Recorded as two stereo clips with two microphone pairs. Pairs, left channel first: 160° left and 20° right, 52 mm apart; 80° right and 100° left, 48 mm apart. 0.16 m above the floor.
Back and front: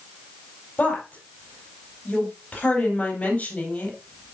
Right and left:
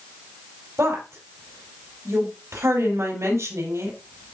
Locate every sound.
0.8 s a woman speaking: 95° left, 4.5 m